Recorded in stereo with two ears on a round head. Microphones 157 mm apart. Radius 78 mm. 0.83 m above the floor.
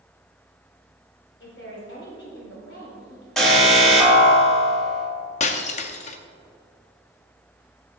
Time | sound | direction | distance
1.4 | a woman speaking | 75° left (ahead or behind) | 3 m
3.4 | an alarm | 5° left (ahead or behind) | 1.5 m
5.4 | breaking glass | 40° left (ahead or behind) | 0.5 m